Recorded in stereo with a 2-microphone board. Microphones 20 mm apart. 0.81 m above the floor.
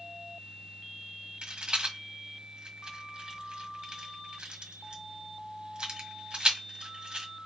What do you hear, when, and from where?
1.4 s a rattle: 40° right (ahead or behind), 1.5 m